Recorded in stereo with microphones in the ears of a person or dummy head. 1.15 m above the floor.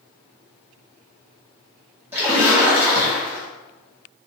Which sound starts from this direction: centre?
A splash, at 2.1 s.